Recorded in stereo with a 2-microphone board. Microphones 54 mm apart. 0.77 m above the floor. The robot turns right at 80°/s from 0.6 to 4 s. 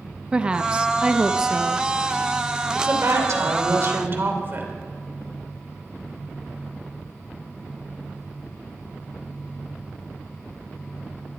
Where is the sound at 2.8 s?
145° right, 2.5 m; by 4.7 s 45° right, 2.5 m.